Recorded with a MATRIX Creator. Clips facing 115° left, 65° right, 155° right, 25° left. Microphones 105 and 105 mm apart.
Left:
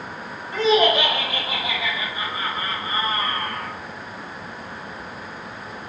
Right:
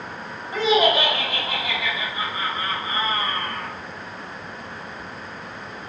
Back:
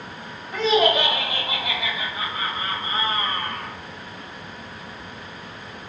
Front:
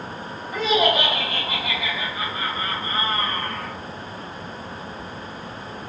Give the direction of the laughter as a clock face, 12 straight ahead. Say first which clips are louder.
Left 1 dB, back 1 dB; 1 o'clock.